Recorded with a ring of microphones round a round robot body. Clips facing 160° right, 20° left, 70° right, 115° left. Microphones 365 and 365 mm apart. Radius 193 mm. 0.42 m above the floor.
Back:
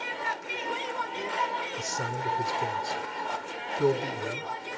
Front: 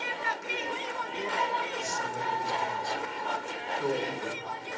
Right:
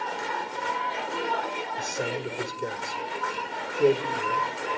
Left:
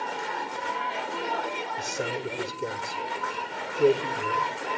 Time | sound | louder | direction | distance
1.8 | a man speaking | back 1 dB, right 1 dB | 165° right | 1.9 m